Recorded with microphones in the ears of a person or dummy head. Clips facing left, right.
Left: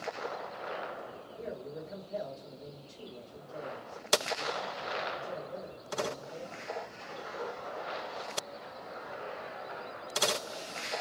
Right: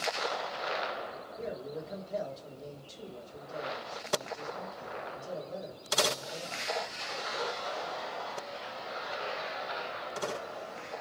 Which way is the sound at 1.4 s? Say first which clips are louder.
Right 2 dB; 20° right (ahead or behind).